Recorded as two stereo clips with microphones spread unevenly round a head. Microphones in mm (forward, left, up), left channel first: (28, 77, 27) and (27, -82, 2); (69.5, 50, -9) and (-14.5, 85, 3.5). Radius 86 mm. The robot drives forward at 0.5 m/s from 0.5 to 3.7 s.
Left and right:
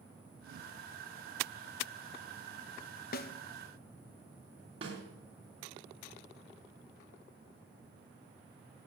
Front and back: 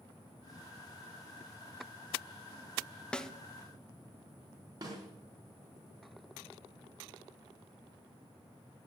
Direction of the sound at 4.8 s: 155° right.